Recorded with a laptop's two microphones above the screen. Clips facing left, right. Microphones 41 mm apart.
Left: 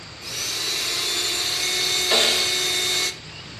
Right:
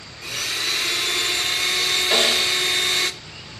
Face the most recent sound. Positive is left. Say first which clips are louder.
# even
turn(degrees=-5)  # may be behind; listen again after turning